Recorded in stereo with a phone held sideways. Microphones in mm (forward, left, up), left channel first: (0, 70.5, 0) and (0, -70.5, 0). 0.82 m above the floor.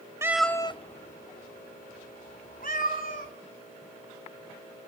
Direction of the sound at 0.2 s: 20° right (ahead or behind).